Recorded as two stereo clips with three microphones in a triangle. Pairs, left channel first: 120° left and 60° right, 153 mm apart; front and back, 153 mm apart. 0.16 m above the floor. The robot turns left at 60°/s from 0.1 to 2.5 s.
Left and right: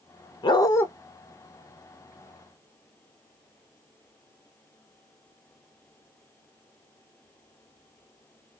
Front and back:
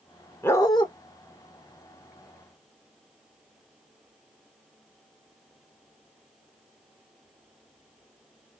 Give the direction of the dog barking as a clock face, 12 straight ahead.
10 o'clock.